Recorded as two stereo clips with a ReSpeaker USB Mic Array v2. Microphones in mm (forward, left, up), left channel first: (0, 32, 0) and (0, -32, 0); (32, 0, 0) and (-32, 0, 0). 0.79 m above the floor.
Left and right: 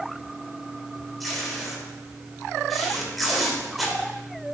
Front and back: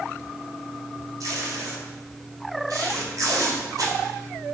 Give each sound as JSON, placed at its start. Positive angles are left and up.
{"t": 1.2, "sound": "tape being pulled", "azimuth_deg": 180, "distance_m": 3.5}